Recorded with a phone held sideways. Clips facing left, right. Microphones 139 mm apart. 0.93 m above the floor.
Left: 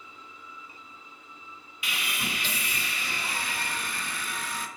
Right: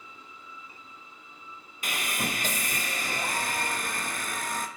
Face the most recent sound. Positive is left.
turn(degrees=-45)  # may be behind; listen again after turning